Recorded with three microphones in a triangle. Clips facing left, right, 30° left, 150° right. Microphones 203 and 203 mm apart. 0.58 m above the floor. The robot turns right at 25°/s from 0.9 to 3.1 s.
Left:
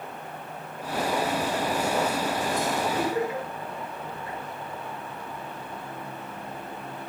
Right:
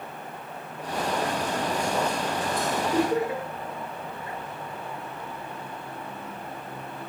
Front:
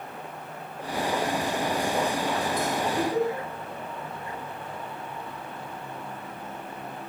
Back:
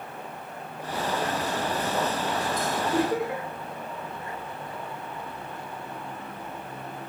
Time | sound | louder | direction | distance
2.9 | laughter | right 3 dB, back 1 dB | 125° right | 8 m